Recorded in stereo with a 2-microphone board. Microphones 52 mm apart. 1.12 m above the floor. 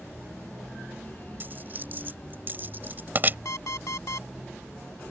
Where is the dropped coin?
40° right (ahead or behind).